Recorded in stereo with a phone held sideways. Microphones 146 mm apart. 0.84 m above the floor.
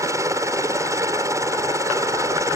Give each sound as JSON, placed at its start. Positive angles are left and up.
{"t": 0.0, "sound": "a helicopter", "side_deg": -20}